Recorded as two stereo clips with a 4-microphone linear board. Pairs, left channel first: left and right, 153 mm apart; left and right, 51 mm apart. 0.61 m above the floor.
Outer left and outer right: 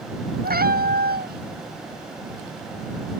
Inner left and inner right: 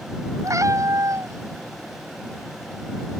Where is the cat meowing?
85° right.